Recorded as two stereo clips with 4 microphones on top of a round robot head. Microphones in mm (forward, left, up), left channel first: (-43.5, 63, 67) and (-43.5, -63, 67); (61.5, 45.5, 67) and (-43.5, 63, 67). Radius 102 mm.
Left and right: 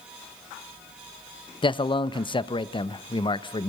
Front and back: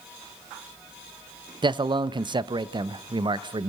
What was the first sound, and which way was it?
A man speaking, 135° left.